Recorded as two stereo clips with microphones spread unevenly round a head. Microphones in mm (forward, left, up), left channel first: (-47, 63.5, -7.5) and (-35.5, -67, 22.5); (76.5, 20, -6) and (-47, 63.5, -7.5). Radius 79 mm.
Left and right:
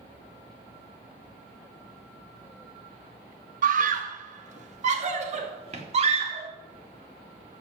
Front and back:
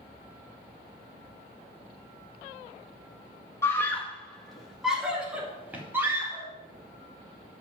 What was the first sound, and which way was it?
A scream, 95° right.